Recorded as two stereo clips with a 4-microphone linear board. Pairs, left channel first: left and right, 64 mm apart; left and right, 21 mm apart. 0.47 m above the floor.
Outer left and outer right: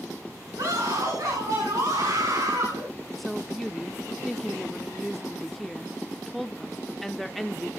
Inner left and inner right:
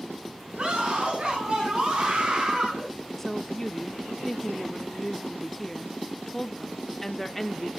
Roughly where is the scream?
Right.